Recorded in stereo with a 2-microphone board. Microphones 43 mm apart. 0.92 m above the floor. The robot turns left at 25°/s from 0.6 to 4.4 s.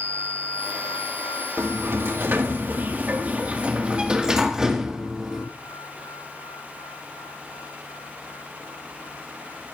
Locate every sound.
1.6 s a sliding door: 95° right, 1.6 m; by 5.5 s 165° right, 1.6 m